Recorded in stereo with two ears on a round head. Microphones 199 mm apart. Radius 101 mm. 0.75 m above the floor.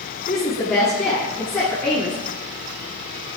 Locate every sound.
0.3 s a woman speaking: 5° left (ahead or behind), 9 m